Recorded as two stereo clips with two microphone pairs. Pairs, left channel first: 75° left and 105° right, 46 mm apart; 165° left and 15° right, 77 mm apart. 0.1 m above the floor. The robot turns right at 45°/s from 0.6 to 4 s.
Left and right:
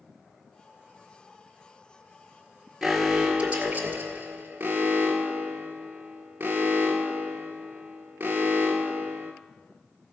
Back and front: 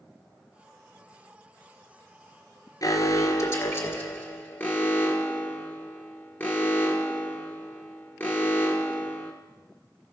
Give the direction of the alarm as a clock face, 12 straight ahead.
6 o'clock.